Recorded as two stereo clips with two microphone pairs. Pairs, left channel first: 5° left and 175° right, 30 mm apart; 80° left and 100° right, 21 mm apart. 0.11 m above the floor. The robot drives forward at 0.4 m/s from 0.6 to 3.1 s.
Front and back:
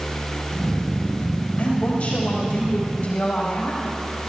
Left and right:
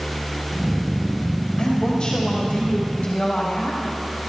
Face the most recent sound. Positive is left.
turn(degrees=50)